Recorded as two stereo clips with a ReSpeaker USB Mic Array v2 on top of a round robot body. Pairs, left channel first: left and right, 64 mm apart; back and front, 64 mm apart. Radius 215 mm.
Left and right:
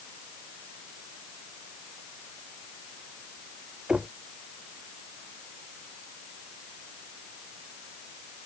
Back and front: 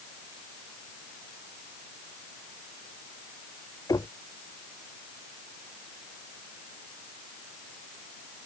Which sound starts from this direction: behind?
Knocking, at 3.9 s.